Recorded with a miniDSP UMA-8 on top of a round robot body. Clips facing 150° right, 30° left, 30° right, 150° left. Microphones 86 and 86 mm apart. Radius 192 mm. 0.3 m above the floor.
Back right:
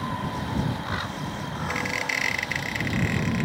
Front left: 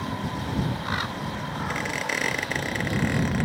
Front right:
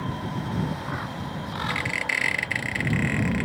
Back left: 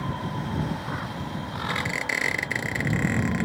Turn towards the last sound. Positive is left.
turn(degrees=85)